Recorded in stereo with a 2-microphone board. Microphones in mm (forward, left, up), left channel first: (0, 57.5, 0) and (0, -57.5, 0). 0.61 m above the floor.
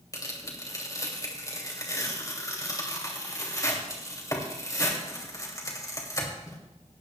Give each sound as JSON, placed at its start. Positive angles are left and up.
{"t": 0.1, "sound": "tearing paper", "side_deg": 30, "distance_m": 2.5}